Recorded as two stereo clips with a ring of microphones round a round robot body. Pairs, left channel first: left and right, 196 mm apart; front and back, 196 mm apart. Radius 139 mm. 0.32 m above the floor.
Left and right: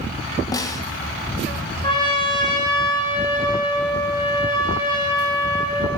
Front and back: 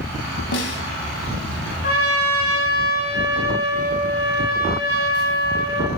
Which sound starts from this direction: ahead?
A snare drum, at 0.5 s.